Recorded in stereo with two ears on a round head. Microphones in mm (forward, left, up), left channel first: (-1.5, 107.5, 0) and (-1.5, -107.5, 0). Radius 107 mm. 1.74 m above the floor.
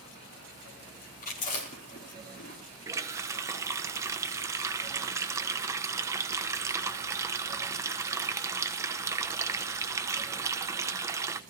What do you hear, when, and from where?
1.2 s chewing: 40° left (ahead or behind), 4.5 m
2.9 s a running tap: 10° right (ahead or behind), 0.7 m